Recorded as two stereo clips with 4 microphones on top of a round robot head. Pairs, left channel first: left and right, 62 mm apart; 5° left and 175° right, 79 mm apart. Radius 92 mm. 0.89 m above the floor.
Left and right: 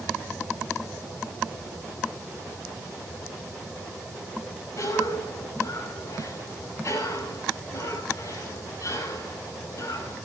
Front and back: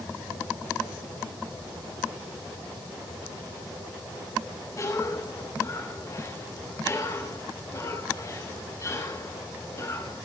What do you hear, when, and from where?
4.8 s a cough: 55° left, 6.5 m